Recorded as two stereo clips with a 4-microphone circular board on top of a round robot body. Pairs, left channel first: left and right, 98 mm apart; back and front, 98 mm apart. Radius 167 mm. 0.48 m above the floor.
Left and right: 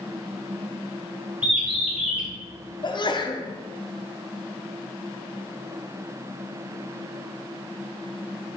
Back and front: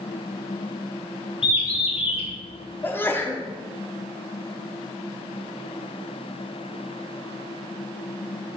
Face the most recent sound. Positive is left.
turn(degrees=115)